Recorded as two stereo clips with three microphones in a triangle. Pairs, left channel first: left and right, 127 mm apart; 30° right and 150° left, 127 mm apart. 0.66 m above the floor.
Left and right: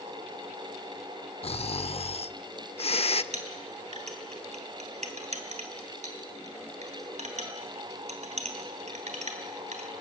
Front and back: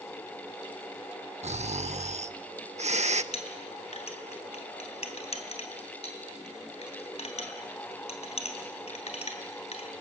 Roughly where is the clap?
No clap in this recording.